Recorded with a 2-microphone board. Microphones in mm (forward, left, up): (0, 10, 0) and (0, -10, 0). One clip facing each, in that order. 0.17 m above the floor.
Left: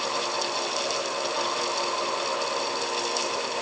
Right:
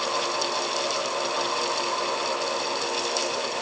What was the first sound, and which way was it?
Only background noise.